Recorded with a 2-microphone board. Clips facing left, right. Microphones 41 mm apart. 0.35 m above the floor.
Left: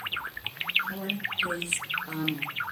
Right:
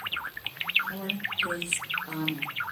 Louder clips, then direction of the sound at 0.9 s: Even; 25° left (ahead or behind).